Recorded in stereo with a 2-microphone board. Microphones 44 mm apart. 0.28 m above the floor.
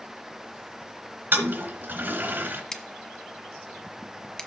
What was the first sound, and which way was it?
A toilet flushing, 50° right (ahead or behind).